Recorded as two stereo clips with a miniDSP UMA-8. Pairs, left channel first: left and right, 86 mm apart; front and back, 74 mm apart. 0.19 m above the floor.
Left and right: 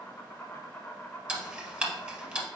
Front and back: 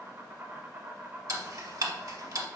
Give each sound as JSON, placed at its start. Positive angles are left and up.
{"t": 0.0, "sound": "an insect", "azimuth_deg": 150, "distance_m": 1.1}
{"t": 1.3, "sound": "ticking", "azimuth_deg": -165, "distance_m": 0.8}